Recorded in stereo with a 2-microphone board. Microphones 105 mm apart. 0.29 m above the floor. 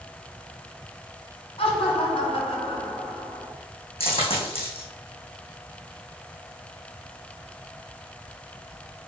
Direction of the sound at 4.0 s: 65° left (ahead or behind).